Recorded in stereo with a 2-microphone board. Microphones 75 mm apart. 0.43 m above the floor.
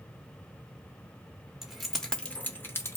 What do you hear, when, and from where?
1.6 s keys jangling: 5° right (ahead or behind), 0.8 m; by 3.0 s 35° left (ahead or behind), 0.8 m